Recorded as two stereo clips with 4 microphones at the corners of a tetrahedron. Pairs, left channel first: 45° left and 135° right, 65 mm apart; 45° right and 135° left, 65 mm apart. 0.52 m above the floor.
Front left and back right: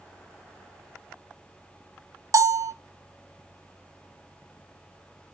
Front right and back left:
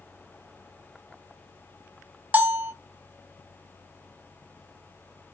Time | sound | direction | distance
2.3 | a bell | 160° right | 0.7 m